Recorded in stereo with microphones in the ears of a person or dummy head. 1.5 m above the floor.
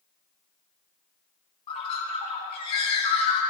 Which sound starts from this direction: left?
A bird, at 1.7 s.